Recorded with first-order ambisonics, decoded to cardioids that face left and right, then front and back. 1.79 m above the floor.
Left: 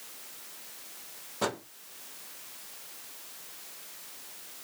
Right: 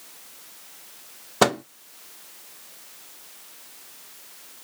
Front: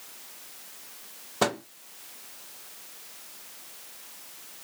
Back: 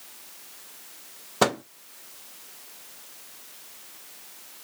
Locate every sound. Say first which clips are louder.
1.4 s a microwave: right 12 dB, back 4 dB; 110° right, 0.7 m